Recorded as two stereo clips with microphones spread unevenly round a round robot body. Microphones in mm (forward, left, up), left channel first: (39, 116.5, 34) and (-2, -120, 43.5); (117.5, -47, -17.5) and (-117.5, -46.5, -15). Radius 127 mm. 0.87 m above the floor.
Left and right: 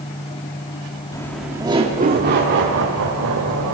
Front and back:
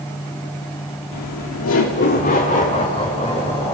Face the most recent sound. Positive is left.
turn(degrees=-75)